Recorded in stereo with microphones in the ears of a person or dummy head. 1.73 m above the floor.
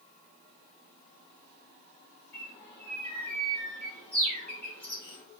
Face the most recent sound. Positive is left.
turn(degrees=10)  # may be behind; listen again after turning